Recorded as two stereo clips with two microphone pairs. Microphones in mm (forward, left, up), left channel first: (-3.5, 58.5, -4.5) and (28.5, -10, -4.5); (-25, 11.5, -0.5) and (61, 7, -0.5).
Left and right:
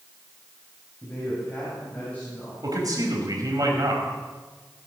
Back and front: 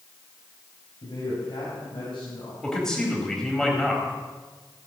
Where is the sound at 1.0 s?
Straight behind, 5 m; by 2.5 s 175° right, 5 m.